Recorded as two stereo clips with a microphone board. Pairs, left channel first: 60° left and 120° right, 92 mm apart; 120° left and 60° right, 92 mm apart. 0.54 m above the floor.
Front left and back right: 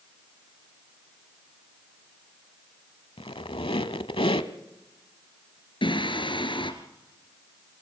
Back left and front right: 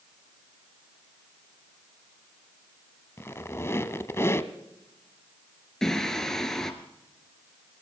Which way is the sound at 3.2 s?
60° left.